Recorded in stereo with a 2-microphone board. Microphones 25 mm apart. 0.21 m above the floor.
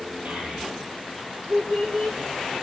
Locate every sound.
0.2 s a child speaking: 85° right, 4 m; by 2.2 s 70° right (ahead or behind), 5.5 m